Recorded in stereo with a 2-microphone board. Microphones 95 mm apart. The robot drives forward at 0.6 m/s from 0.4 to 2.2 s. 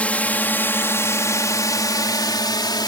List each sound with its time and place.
0.0 s a drone: 15° left (ahead or behind); by 2.9 s 50° left (ahead or behind)